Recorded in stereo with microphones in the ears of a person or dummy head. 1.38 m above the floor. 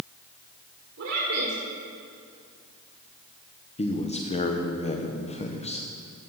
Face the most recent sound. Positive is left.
turn(degrees=30)  # may be behind; listen again after turning